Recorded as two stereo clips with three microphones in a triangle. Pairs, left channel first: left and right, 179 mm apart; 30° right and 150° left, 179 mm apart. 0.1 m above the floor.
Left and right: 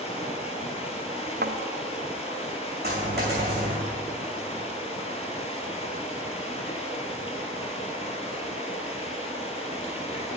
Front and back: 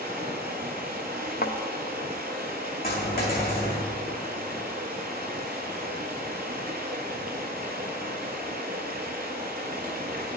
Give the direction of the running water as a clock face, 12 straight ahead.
7 o'clock.